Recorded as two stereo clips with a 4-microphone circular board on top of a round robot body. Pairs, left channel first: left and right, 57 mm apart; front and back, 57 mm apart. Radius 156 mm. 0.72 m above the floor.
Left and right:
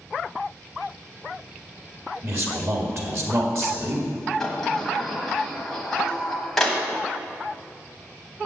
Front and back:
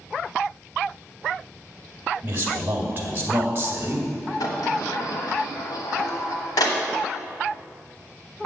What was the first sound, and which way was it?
A man speaking, 125° right.